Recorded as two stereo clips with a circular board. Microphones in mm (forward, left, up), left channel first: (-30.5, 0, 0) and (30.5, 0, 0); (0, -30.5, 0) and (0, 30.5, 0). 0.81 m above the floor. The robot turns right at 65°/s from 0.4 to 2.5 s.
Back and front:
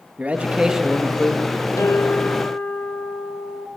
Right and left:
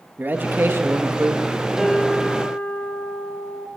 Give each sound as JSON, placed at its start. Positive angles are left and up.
{"t": 0.2, "sound": "a man speaking", "azimuth_deg": 55, "distance_m": 1.1}
{"t": 1.8, "sound": "a guitar", "azimuth_deg": 170, "distance_m": 2.5}